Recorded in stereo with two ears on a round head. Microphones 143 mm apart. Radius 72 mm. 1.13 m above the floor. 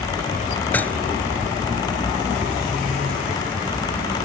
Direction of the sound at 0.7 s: 10° left (ahead or behind).